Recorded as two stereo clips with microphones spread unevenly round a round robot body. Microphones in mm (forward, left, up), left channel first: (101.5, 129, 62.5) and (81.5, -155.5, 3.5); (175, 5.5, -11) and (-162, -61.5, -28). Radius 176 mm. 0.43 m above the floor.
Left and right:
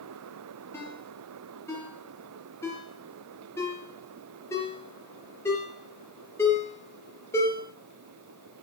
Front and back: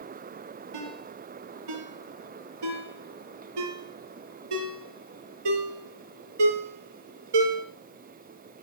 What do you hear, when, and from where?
0.7 s a ringtone: 170° left, 3.5 m